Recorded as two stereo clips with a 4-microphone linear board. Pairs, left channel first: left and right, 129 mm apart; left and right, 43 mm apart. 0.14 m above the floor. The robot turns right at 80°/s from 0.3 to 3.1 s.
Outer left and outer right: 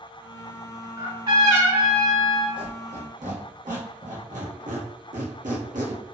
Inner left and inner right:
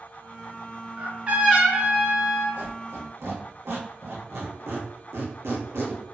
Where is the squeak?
35° right (ahead or behind), 1.1 m; by 6.0 s 80° right, 1.1 m.